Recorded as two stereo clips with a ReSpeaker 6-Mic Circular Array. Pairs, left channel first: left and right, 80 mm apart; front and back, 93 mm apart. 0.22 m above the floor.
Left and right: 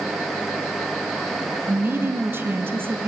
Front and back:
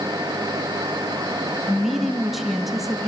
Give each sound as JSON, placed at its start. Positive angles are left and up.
{"t": 1.7, "sound": "a woman speaking", "azimuth_deg": -95, "distance_m": 1.4}